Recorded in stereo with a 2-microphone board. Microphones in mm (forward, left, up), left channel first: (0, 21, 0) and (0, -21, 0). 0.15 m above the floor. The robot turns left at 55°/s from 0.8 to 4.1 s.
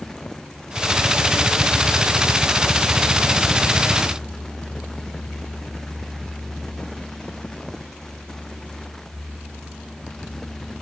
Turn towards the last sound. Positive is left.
No sound to turn to.